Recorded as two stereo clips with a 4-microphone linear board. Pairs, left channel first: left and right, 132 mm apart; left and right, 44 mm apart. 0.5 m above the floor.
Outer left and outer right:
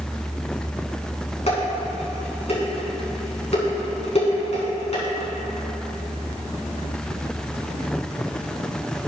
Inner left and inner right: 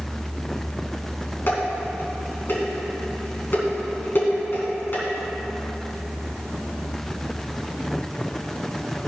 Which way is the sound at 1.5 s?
55° left (ahead or behind).